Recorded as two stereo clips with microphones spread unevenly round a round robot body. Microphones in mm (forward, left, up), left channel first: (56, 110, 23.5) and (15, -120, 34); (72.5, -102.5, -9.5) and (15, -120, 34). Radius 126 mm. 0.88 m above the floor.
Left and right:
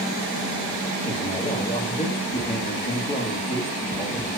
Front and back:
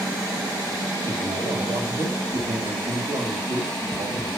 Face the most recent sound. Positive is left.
turn(degrees=140)